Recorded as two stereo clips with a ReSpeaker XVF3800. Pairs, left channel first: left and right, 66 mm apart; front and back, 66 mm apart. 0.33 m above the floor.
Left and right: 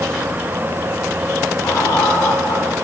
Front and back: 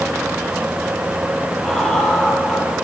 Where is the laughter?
85° left, 10 m.